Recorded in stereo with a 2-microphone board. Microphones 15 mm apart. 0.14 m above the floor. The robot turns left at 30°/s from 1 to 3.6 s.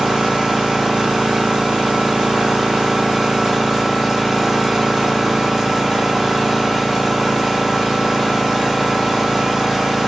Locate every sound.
0.0 s an engine running: 70° right, 2.0 m; by 10.1 s 150° right, 2.0 m